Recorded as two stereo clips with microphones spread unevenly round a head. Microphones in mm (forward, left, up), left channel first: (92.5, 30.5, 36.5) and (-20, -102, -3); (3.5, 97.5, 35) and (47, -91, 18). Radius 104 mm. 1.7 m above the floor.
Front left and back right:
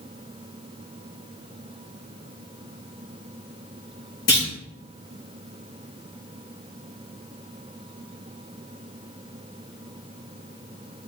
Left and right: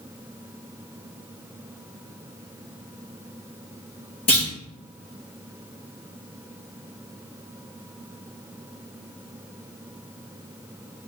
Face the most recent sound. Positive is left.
turn(degrees=45)